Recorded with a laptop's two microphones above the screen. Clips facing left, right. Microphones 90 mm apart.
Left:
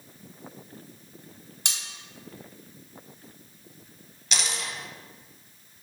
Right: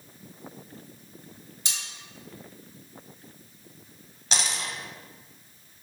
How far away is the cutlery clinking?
About 0.7 m.